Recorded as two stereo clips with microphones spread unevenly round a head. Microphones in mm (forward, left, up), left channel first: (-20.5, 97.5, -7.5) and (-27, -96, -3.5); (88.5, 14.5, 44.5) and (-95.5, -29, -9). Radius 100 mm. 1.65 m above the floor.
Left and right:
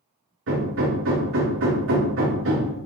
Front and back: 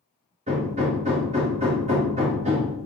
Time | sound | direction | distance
0.5 | hammering | 105° right | 2.5 m